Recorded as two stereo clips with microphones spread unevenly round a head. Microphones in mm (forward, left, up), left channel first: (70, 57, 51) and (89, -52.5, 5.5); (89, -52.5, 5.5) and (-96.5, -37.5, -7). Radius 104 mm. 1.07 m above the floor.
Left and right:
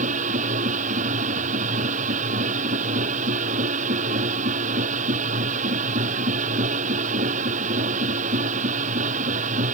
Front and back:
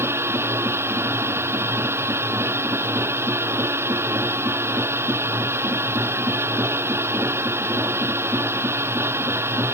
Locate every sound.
0.0 s a machine running: 105° right